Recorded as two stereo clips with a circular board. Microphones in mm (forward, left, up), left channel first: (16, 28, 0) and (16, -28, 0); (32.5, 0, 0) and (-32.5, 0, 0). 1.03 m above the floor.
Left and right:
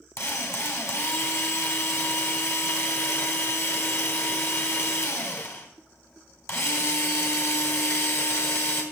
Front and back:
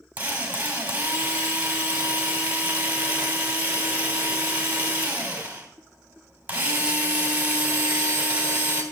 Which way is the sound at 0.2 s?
115° left.